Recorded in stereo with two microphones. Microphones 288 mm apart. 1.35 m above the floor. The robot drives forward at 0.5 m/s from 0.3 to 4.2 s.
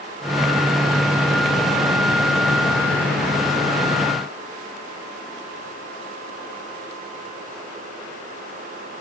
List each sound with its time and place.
Only background noise.